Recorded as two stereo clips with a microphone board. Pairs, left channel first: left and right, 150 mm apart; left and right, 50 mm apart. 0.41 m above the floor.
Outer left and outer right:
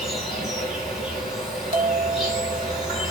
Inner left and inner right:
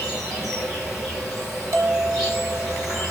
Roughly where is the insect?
Centre.